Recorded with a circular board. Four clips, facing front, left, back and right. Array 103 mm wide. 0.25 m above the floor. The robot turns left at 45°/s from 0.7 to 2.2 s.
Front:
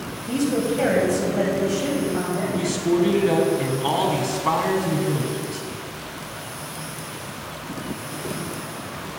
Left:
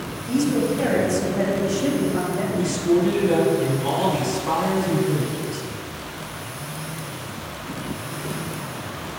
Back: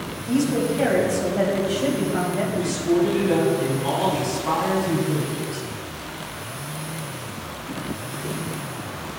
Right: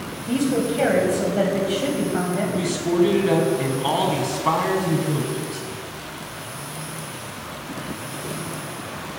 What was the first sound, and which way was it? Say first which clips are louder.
A woman speaking: left 1 dB, back 1 dB; 70° right.